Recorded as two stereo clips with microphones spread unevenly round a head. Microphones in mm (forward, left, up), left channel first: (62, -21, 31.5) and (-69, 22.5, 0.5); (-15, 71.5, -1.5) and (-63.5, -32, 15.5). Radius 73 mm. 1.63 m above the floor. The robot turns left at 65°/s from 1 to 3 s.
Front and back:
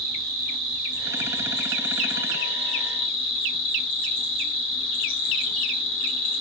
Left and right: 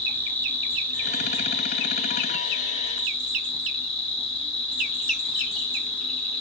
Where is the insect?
140° left, 1.5 m; by 6.4 s 10° left, 1.5 m.